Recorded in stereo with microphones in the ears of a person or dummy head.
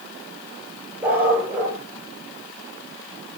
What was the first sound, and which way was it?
A dog barking, 10° right (ahead or behind).